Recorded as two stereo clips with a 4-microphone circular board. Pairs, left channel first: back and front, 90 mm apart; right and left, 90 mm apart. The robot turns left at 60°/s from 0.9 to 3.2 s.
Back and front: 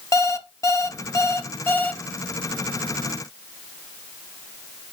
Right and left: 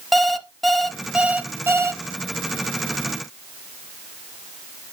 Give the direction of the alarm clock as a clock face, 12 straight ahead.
6 o'clock.